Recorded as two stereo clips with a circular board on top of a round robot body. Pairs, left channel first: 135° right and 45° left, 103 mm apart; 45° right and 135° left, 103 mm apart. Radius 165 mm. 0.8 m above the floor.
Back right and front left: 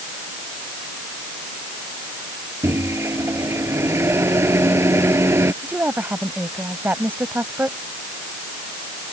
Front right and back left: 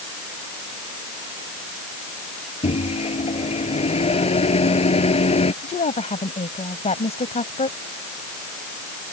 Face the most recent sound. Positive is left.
turn(degrees=-30)